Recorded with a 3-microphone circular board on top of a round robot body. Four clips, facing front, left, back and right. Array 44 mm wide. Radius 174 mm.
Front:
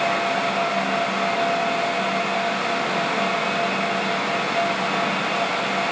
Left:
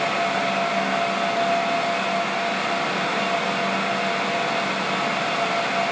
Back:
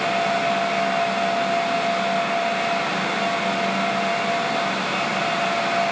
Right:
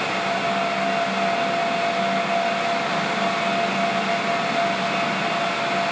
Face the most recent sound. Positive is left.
No sound to turn to.